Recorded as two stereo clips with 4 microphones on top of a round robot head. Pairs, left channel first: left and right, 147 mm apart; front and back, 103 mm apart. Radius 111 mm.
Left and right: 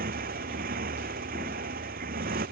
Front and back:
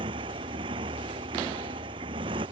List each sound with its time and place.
0.0 s a motorcycle: 125° right